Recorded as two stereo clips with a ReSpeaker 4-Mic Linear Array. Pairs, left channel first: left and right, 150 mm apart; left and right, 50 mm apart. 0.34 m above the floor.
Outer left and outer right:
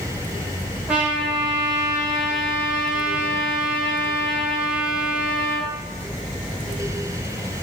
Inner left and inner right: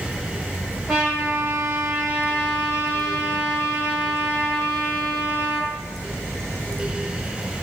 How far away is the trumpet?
About 1.4 m.